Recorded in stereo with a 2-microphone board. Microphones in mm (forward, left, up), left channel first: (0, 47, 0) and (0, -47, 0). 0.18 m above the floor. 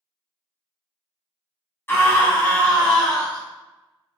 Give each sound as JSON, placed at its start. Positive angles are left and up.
{"t": 1.9, "sound": "a scream", "side_deg": 25, "distance_m": 1.4}